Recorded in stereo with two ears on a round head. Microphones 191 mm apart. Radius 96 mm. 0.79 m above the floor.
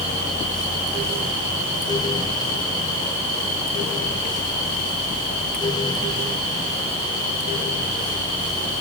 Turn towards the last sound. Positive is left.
No sound to turn to.